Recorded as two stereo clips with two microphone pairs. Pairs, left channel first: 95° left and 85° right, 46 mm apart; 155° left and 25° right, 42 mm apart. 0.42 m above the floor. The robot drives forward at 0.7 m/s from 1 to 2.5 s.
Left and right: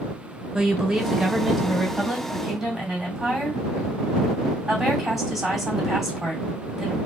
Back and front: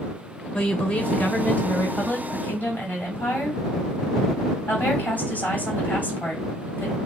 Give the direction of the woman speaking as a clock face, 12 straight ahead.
5 o'clock.